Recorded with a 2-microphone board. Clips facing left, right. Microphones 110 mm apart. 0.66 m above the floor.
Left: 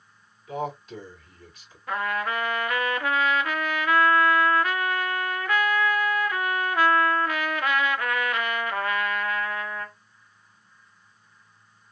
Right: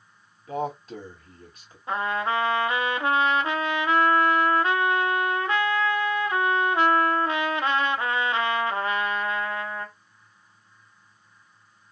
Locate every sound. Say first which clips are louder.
0.5 s a man speaking: right 2 dB; 45° right (ahead or behind), 1.9 m
1.9 s a trumpet: right 2 dB; 25° right (ahead or behind), 0.6 m